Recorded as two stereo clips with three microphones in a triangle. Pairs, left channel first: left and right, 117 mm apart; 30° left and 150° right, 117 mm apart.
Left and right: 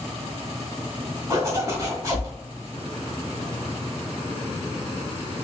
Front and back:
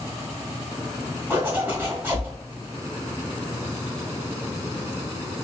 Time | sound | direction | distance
1.3 | a zipper | 90° right | 1.3 m